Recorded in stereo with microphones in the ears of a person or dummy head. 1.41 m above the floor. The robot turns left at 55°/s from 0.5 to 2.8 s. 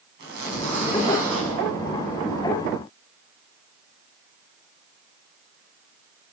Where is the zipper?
60° right, 6.5 m; by 1.6 s 120° right, 6.5 m.